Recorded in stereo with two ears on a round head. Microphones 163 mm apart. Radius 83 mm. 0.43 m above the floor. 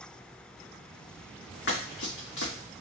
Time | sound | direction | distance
1.7 | running footsteps | 75° left (ahead or behind) | 2.0 m